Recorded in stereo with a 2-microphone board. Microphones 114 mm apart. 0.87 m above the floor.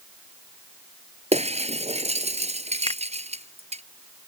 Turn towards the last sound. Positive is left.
turn(degrees=40)  # may be behind; listen again after turning